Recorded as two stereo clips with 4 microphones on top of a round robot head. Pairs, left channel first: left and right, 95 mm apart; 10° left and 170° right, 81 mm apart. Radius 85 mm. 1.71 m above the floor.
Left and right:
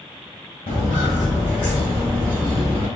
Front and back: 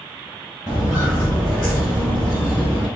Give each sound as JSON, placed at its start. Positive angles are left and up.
{"t": 0.7, "sound": "footsteps", "azimuth_deg": 115, "distance_m": 1.9}